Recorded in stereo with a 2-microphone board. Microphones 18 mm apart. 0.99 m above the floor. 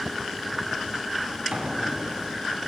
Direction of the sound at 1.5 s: 80° right.